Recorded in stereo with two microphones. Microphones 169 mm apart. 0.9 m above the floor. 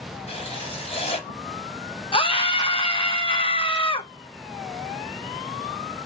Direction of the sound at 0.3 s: 35° left (ahead or behind).